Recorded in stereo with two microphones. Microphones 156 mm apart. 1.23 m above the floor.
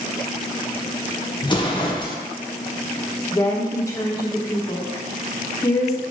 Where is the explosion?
30° left (ahead or behind), 0.6 m.